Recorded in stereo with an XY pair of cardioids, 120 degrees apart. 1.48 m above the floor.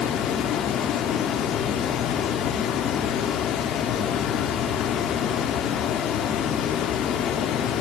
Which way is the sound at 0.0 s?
65° left.